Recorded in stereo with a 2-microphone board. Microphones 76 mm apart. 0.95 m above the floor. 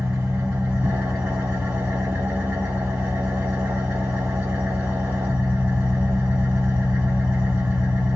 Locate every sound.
0.0 s an engine running: 30° right (ahead or behind), 1.4 m